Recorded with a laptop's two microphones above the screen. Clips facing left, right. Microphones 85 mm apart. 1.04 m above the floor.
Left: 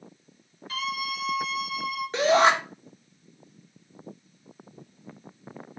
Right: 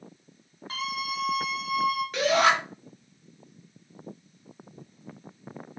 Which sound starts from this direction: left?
A shout, at 2.1 s.